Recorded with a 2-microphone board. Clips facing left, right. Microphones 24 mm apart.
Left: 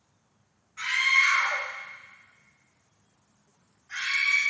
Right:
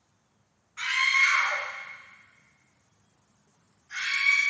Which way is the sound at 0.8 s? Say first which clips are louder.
Left 1 dB; 20° right (ahead or behind).